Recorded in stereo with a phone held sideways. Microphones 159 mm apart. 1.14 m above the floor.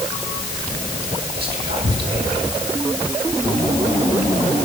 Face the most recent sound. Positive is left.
turn(degrees=-80)